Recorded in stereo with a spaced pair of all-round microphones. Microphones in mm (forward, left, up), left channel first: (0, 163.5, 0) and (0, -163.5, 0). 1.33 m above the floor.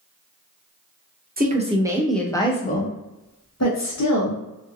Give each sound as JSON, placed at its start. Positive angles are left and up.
{"t": 1.4, "sound": "a woman speaking", "side_deg": -30, "distance_m": 0.8}